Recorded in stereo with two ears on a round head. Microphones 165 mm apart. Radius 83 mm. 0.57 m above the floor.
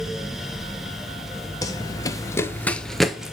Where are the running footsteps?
20° left (ahead or behind), 0.8 m; by 3.3 s 5° right (ahead or behind), 0.8 m.